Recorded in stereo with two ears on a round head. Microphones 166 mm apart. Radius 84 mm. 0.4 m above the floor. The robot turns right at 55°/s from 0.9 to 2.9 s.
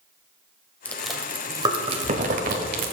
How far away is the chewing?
About 1.4 m.